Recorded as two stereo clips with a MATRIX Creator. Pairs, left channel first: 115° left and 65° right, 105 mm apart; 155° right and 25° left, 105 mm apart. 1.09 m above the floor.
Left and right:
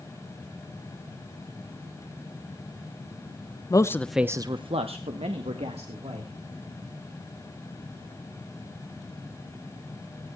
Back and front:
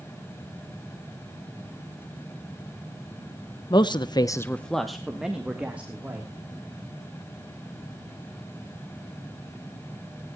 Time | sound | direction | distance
3.7 | a man speaking | 160° left | 1.0 m